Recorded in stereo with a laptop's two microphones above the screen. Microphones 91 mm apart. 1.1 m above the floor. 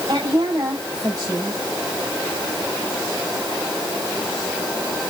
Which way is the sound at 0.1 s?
45° right (ahead or behind).